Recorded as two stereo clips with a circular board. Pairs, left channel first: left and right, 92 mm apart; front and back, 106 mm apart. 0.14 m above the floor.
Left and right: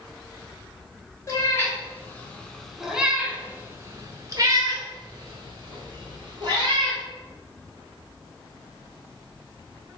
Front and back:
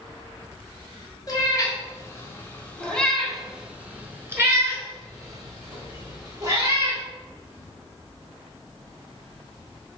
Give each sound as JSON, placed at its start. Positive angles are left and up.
{"t": 1.3, "sound": "a cat meowing", "azimuth_deg": 45, "distance_m": 1.1}